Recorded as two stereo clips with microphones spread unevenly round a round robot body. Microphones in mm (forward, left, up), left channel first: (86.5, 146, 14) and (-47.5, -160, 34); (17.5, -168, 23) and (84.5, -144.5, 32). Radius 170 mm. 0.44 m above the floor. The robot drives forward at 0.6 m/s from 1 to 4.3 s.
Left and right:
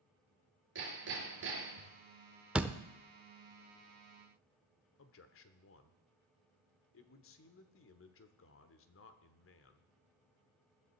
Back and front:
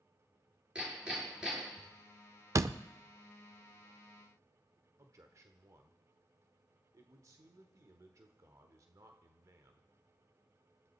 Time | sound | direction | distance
0.8 | hammering | 55° right | 4.5 m
2.5 | a door slam | 25° right | 0.7 m
5.0 | a man speaking | 50° left | 1.2 m